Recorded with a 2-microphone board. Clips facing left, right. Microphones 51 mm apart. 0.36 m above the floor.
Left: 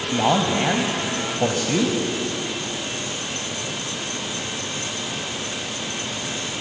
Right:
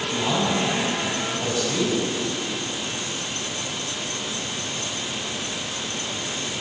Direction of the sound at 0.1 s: 60° left (ahead or behind).